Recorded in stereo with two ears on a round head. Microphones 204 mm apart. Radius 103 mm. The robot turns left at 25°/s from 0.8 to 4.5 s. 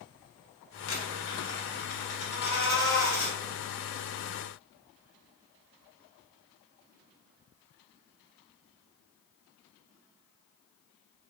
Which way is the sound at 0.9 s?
65° left.